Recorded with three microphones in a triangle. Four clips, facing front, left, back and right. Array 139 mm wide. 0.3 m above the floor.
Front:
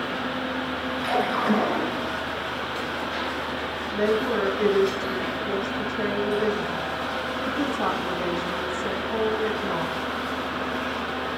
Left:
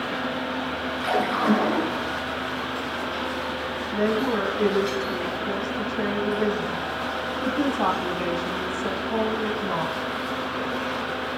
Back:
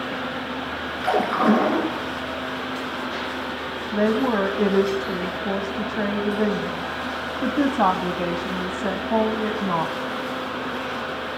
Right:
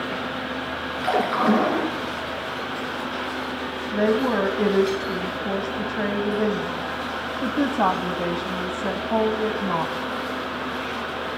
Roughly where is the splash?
Behind right.